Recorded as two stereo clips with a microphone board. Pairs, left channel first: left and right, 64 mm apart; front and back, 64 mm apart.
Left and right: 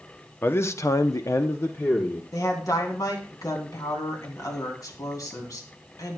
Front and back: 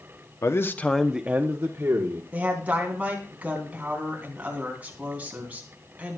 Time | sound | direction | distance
0.4 | a man speaking | 35° left | 0.9 m
2.3 | a woman speaking | 115° left | 3 m